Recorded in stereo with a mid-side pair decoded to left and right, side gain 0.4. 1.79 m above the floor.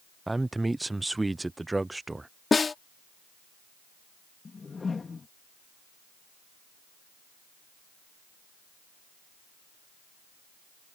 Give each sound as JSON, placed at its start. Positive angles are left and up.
{"t": 0.3, "sound": "a man speaking", "azimuth_deg": -20}
{"t": 2.5, "sound": "a snare drum", "azimuth_deg": 35}
{"t": 4.5, "sound": "a whoosh", "azimuth_deg": 35}